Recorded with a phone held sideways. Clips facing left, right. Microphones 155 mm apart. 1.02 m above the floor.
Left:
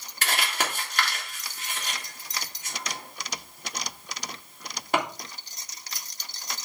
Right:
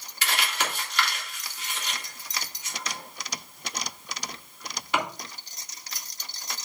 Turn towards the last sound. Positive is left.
turn(degrees=50)  # may be behind; listen again after turning